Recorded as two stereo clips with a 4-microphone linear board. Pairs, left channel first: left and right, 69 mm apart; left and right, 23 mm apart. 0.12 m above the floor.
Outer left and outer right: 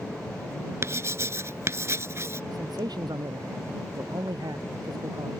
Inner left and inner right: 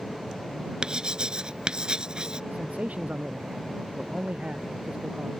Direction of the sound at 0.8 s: 40° right (ahead or behind).